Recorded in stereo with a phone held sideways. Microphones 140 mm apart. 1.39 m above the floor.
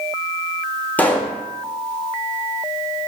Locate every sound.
1.0 s a pop: 10° left (ahead or behind), 0.6 m